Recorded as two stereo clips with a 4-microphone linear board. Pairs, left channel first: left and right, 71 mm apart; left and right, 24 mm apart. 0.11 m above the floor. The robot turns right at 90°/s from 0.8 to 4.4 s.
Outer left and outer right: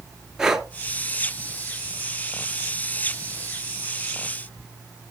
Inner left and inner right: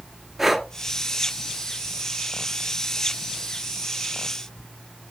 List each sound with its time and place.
0.4 s breathing: 10° right (ahead or behind), 1.3 m